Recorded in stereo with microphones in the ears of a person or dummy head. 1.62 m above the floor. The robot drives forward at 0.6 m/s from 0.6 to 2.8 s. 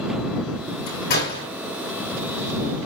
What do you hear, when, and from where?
0.9 s a door slam: 60° left (ahead or behind), 8 m